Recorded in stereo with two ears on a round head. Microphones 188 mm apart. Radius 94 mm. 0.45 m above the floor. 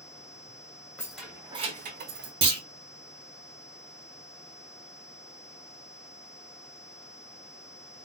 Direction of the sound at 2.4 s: 30° right (ahead or behind).